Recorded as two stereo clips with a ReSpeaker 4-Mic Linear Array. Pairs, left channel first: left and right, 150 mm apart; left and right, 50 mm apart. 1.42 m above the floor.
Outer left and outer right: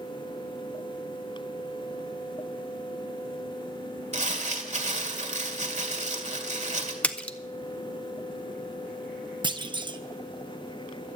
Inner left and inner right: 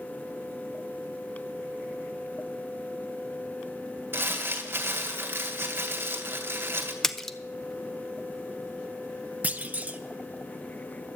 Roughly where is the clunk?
Right.